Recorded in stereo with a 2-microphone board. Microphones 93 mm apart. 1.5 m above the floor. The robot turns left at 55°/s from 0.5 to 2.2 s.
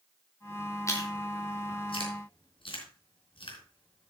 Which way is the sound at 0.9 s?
30° left (ahead or behind).